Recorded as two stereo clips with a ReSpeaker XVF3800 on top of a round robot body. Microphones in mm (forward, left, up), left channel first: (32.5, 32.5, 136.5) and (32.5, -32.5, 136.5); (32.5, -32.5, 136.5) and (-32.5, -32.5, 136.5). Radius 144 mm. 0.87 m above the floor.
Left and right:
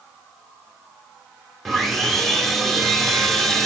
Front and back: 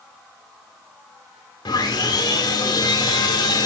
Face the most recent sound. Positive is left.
turn(degrees=0)